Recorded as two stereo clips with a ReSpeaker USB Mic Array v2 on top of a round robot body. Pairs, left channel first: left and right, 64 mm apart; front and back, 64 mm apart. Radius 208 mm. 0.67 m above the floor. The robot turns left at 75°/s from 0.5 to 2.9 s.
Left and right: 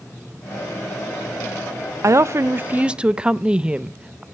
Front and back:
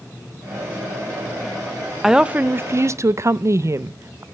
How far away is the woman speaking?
About 0.7 m.